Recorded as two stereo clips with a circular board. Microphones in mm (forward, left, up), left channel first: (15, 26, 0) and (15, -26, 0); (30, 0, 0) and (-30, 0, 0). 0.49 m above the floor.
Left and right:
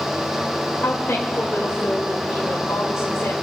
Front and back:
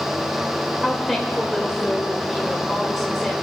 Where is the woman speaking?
90° left, 1.8 m.